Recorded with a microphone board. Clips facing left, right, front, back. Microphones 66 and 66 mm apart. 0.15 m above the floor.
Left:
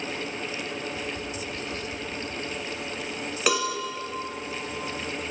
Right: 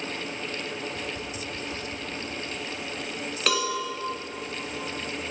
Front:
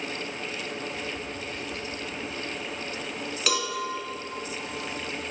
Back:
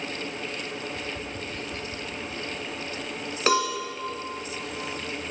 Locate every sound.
0.9 s tapping: 145° right, 1.6 m
3.5 s a cowbell: 165° left, 1.4 m